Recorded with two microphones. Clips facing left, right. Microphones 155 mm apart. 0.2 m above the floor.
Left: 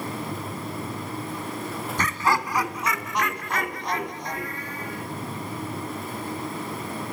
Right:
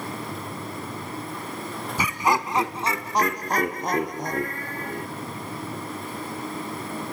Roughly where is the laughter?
Centre.